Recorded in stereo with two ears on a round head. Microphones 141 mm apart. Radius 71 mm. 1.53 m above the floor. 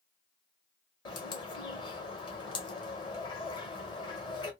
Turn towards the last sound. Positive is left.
turn(degrees=30)  # may be behind; listen again after turning